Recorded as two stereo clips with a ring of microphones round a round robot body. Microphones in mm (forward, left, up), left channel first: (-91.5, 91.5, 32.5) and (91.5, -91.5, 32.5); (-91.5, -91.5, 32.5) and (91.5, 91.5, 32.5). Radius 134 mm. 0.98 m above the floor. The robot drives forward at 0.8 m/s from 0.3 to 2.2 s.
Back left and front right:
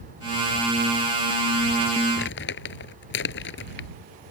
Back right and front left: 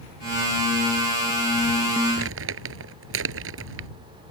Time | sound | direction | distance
2.2 | crumpling | 85° left | ?